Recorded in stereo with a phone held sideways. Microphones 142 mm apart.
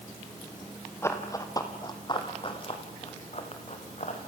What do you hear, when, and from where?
1.0 s running footsteps: 20° left (ahead or behind), 2.5 m; by 4.2 s 50° left (ahead or behind), 3.5 m